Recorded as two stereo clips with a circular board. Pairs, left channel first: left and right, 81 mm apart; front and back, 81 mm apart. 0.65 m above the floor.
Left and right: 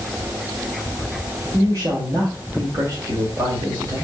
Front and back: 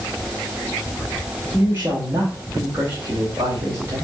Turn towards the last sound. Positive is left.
turn(degrees=-125)